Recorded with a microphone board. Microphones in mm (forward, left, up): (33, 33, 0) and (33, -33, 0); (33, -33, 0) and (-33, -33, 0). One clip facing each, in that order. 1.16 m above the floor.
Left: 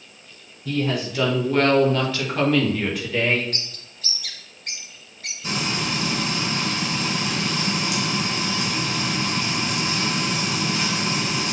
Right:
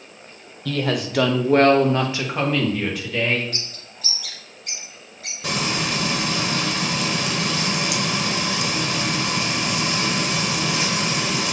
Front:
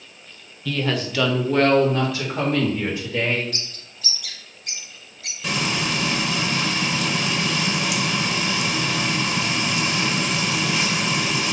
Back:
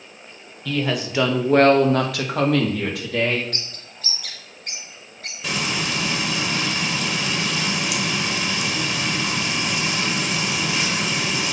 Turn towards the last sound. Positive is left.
turn(degrees=-95)